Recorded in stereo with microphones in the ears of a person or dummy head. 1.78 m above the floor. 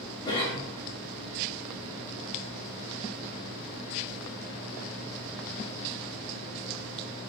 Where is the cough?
25° left (ahead or behind), 1.2 m.